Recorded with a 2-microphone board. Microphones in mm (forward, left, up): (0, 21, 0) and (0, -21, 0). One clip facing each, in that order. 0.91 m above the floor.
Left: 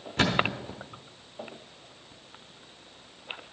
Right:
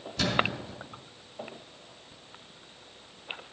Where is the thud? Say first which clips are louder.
Left 2 dB; 40° left (ahead or behind), 0.9 m.